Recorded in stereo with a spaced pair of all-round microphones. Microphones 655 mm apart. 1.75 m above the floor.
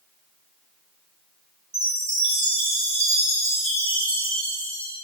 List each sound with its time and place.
1.7 s a chime: 80° right, 2.5 m